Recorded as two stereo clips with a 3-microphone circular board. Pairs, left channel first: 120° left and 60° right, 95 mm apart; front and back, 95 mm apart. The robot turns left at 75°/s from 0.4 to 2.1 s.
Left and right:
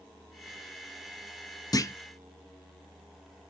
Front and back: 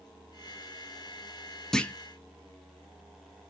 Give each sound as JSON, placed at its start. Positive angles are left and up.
{"t": 1.7, "sound": "a clunk", "azimuth_deg": 85, "distance_m": 0.5}